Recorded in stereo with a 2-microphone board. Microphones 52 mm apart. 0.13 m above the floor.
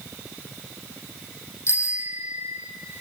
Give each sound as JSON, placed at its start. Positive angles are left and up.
{"t": 1.7, "sound": "a bicycle bell", "side_deg": 60, "distance_m": 3.5}